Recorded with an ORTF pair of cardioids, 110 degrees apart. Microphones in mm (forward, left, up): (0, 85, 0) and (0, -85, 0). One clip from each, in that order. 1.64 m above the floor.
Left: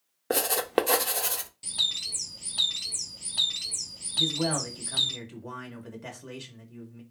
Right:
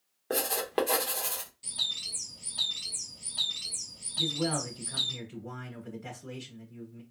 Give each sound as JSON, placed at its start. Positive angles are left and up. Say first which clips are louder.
{"t": 0.3, "sound": "writing", "louder": "left 4 dB", "azimuth_deg": 30, "distance_m": 0.8}
{"t": 1.6, "sound": "a bird", "louder": "left 4 dB", "azimuth_deg": 35, "distance_m": 0.9}
{"t": 4.2, "sound": "a man speaking", "louder": "left 3 dB", "azimuth_deg": 45, "distance_m": 3.0}